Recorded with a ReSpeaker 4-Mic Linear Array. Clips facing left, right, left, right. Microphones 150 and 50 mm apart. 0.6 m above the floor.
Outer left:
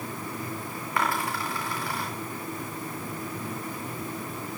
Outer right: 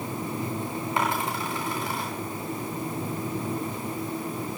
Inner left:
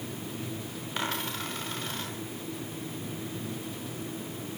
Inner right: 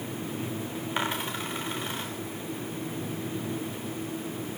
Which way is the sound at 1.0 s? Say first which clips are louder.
Even, inner right 2 dB; 20° right (ahead or behind).